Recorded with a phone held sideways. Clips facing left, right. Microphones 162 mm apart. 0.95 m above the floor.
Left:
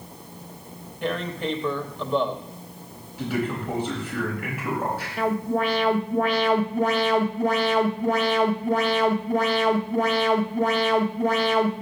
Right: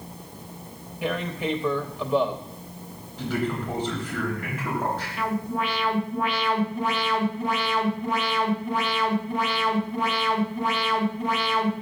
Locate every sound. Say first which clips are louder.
1.0 s tearing paper: even; 5° right (ahead or behind), 0.7 m
3.2 s a man speaking: left 1 dB; 10° left (ahead or behind), 4.5 m
5.2 s an alarm: left 6 dB; 45° left (ahead or behind), 1.0 m